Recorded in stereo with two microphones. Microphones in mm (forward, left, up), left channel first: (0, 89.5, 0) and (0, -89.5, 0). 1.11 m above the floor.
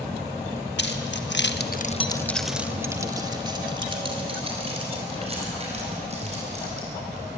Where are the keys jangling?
75° left (ahead or behind), 1.6 m; by 7.3 s 40° right (ahead or behind), 7.5 m.